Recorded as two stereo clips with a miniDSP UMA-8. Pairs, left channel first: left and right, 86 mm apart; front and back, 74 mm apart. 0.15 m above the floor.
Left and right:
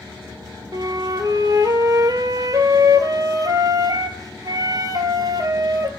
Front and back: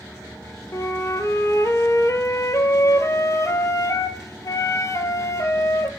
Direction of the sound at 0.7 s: 45° right.